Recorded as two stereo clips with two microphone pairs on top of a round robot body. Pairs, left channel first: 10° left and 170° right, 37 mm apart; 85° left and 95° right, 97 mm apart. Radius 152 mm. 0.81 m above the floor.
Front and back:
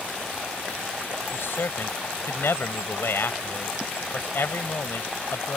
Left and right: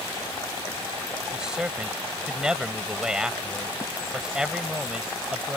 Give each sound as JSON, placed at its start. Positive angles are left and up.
{"t": 1.3, "sound": "a man speaking", "azimuth_deg": -10}